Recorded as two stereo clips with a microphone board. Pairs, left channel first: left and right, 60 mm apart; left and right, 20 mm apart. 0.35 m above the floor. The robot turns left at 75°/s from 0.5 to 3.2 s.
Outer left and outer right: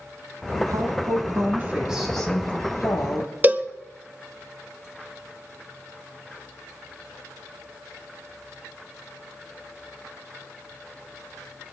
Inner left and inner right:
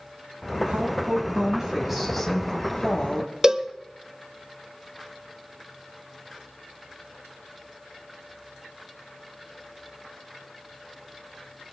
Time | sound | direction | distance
0.7 | a woman speaking | 75° right | 1.9 m
3.4 | a cowbell | 30° right (ahead or behind) | 0.7 m